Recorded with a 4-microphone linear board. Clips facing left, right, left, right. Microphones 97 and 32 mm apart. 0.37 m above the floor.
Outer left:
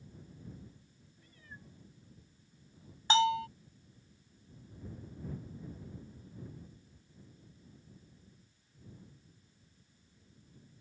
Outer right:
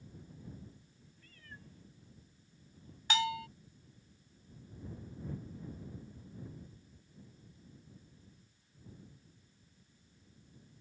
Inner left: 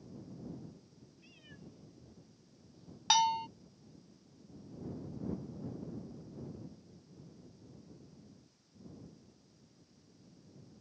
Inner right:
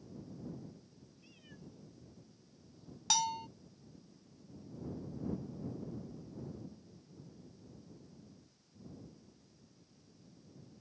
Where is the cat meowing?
15° left (ahead or behind).